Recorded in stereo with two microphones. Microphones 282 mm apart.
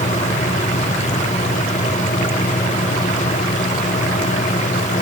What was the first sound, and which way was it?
Only background noise.